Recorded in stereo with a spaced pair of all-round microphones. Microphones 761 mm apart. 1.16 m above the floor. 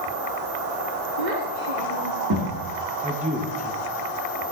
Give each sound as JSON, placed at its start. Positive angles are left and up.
{"t": 1.2, "sound": "a child speaking", "side_deg": -75, "distance_m": 1.7}
{"t": 3.0, "sound": "a man speaking", "side_deg": -10, "distance_m": 1.4}